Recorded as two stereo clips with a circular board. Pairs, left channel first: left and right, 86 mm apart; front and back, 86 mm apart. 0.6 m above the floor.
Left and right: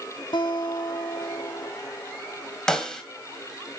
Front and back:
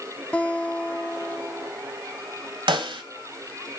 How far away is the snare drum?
About 1.7 m.